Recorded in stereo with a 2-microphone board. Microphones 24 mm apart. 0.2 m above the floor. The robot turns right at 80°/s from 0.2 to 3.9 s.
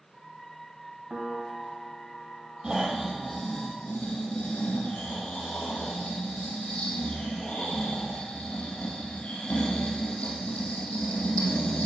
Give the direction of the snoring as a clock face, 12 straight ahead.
1 o'clock.